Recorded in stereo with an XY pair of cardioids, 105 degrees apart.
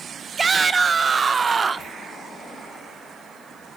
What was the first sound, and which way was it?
A shout, 35° right.